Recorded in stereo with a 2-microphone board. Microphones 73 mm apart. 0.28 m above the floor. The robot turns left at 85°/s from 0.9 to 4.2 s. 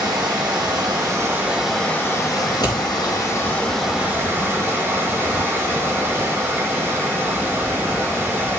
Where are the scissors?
65° left (ahead or behind), 3.5 m; by 2.8 s 70° left (ahead or behind), 3.5 m.